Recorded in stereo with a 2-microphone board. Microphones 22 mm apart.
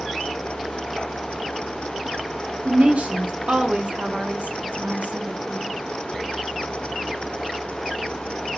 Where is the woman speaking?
75° right (ahead or behind), 0.6 m.